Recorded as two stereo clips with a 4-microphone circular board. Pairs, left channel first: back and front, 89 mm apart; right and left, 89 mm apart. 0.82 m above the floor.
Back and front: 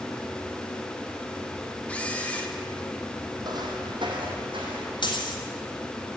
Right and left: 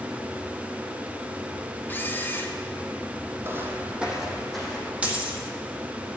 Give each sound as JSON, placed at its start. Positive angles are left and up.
{"t": 1.9, "sound": "a camera shutter", "azimuth_deg": -125, "distance_m": 1.1}
{"t": 3.4, "sound": "footsteps", "azimuth_deg": 30, "distance_m": 1.8}
{"t": 5.0, "sound": "a dropped coin", "azimuth_deg": 160, "distance_m": 1.9}